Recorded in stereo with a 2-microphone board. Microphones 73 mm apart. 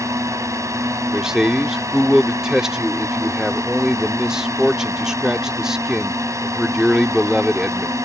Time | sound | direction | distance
0.0 | a drone | 45° right (ahead or behind) | ?
1.1 | a man speaking | 5° right (ahead or behind) | ?